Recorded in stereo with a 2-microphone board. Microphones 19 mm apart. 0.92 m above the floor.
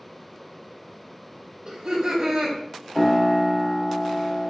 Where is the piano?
65° left (ahead or behind), 1.4 m.